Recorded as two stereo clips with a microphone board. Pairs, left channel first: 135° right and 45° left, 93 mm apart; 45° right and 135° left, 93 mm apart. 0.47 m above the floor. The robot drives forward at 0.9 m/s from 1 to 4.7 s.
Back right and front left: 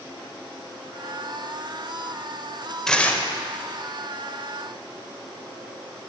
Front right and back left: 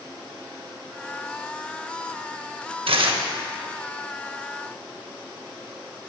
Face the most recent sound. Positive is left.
turn(degrees=170)